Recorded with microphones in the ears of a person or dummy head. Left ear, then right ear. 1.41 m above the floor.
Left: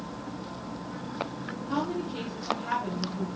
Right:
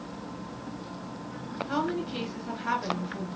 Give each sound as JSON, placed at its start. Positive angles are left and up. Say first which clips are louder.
{"t": 1.7, "sound": "a woman speaking", "louder": "right 1 dB", "side_deg": -60, "distance_m": 1.0}